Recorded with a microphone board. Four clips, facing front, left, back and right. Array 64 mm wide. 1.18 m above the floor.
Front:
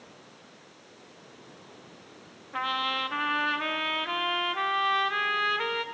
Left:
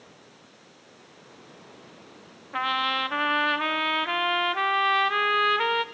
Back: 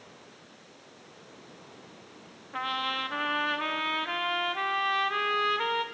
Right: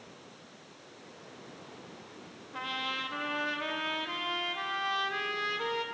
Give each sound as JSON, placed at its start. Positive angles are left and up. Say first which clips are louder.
{"t": 2.5, "sound": "a trumpet", "louder": "left 10 dB, front 2 dB", "azimuth_deg": 85, "distance_m": 0.7}